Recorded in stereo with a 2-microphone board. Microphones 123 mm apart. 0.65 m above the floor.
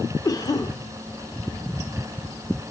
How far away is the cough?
About 2.5 m.